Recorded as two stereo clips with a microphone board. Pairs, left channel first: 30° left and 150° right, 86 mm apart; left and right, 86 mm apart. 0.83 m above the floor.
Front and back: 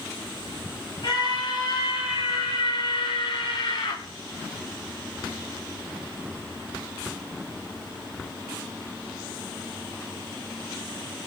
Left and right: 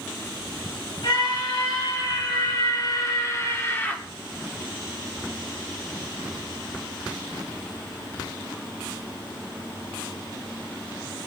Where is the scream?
60° left, 5 m; by 4.0 s 20° left, 2 m.